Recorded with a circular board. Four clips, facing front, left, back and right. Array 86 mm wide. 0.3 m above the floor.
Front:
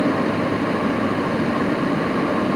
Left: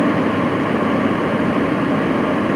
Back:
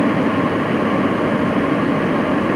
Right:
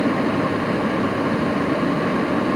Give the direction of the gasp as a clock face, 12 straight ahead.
No gasp in this recording.